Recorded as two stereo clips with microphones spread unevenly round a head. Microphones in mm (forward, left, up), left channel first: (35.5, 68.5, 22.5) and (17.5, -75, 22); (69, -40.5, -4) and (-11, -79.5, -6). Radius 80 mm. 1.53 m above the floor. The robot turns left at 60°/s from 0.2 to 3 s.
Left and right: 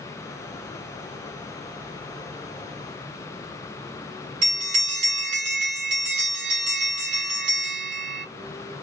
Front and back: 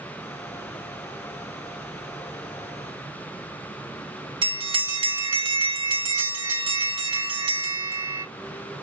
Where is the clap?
I don't hear a clap.